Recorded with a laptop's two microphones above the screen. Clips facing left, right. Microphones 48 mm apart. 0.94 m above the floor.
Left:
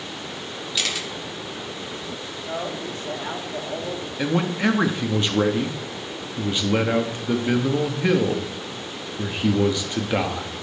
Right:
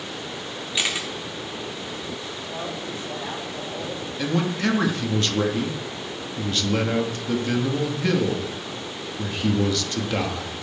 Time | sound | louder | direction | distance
0.8 | a camera shutter | right 1 dB | 20° right (ahead or behind) | 1.3 m
2.5 | a man speaking | left 4 dB | 65° left (ahead or behind) | 2.5 m
4.2 | a man speaking | left 2 dB | 20° left (ahead or behind) | 1.3 m